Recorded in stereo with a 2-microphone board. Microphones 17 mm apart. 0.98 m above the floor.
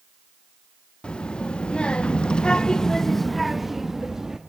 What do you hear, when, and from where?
1.0 s a child speaking: 75° left (ahead or behind), 1.5 m; by 4.4 s 25° right (ahead or behind), 1.3 m